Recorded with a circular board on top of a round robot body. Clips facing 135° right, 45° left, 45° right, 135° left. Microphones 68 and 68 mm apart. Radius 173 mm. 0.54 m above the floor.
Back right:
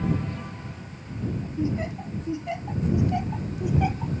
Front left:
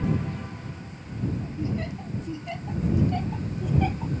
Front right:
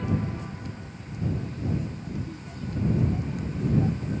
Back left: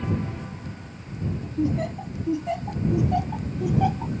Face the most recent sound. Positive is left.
turn(degrees=145)